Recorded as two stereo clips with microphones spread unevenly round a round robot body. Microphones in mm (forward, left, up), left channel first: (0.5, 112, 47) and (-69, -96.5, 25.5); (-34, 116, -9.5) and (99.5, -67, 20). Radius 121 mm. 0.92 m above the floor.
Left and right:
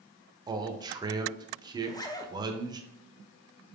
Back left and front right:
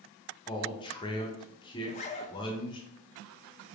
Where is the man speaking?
175° right, 0.6 m.